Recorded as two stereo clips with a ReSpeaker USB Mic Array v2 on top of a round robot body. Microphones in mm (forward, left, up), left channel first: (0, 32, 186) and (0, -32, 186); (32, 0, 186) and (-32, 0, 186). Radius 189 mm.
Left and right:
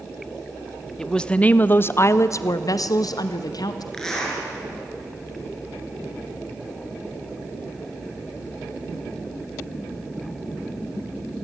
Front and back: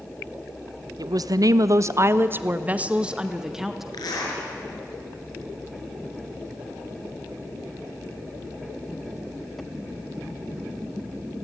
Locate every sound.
1.0 s a woman speaking: 170° left, 0.9 m; by 3.8 s 95° left, 1.4 m
3.9 s a zipper: 10° left, 5.5 m